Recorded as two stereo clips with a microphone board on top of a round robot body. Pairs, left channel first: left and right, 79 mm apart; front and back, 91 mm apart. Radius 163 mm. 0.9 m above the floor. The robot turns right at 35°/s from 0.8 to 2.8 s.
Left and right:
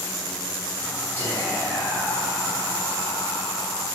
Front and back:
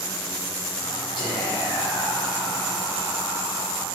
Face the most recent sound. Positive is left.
turn(degrees=90)